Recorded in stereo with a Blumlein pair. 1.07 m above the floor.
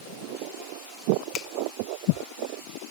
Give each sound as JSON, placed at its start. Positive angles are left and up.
{"t": 1.3, "sound": "a finger snap", "azimuth_deg": 25, "distance_m": 1.0}